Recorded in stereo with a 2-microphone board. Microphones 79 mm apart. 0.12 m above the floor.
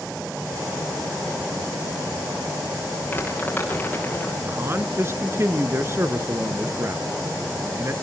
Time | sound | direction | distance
3.1 | crumpling | 20° left (ahead or behind) | 7.5 m
4.4 | a man speaking | 35° right (ahead or behind) | 1.6 m